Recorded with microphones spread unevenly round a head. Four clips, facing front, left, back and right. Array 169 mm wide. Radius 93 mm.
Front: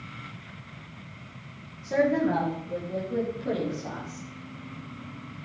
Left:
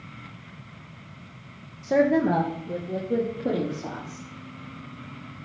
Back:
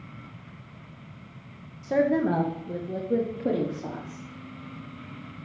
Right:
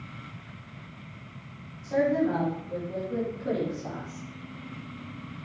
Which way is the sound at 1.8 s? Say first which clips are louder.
Left 4 dB, back 1 dB; 100° left.